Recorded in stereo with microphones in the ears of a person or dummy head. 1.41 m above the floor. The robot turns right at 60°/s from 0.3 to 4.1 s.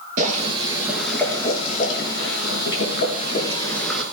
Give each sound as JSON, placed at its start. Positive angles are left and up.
{"t": 0.2, "sound": "boiling", "azimuth_deg": -50, "distance_m": 6.5}